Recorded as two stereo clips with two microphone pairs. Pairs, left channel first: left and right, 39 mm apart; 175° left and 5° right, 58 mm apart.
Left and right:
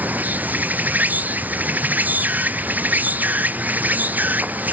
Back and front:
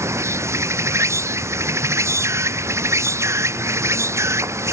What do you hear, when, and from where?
0.0 s an insect: 45° right